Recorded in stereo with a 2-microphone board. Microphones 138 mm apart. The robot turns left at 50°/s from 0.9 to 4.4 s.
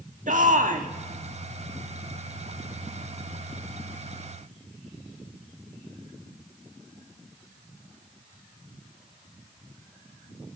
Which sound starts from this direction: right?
A shout, at 0.3 s.